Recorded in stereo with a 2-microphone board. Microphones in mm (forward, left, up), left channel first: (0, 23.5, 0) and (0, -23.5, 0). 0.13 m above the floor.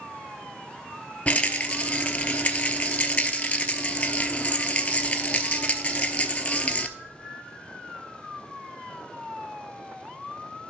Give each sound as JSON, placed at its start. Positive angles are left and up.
{"t": 1.3, "sound": "a rattle", "side_deg": 30, "distance_m": 0.7}